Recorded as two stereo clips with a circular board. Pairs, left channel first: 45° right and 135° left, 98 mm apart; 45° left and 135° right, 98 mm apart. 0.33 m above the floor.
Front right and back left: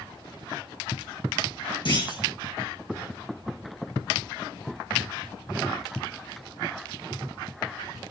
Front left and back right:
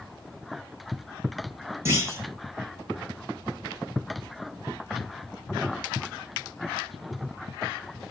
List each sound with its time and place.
1.9 s a clunk: 75° right, 7 m